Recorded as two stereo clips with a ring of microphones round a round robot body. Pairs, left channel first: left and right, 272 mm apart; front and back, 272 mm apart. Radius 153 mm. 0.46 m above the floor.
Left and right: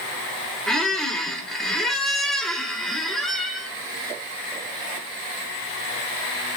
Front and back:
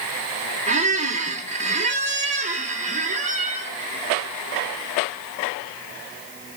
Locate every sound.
0.7 s a squeak: 175° left, 0.8 m